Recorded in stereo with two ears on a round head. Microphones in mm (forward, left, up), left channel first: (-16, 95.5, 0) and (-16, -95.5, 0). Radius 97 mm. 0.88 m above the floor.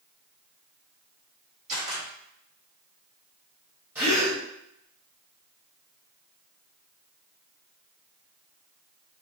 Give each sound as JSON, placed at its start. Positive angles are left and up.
{"t": 1.7, "sound": "a camera shutter", "side_deg": -35, "distance_m": 2.0}
{"t": 4.0, "sound": "a gasp", "side_deg": -10, "distance_m": 1.6}